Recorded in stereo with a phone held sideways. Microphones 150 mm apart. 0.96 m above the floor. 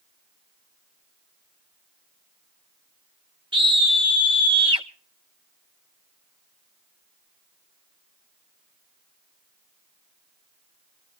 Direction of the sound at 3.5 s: 30° right (ahead or behind).